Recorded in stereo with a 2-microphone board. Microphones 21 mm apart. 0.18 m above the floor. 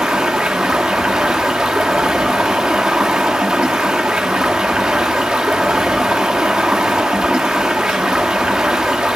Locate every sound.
0.0 s running water: 85° right, 1.6 m